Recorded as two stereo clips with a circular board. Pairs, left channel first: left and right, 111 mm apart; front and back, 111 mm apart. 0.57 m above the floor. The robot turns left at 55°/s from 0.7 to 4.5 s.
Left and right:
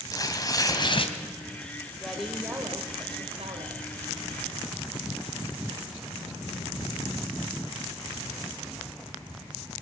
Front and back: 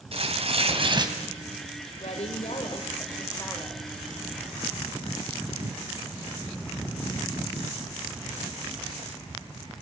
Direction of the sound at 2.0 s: 5° left.